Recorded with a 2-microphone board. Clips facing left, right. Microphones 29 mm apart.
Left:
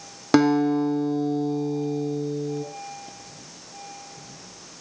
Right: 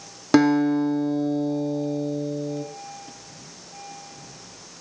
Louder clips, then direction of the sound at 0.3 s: Right 1 dB; 10° left (ahead or behind).